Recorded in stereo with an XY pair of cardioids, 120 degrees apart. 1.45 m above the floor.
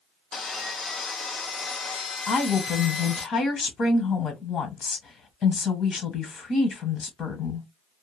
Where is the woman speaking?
50° left, 1.3 m.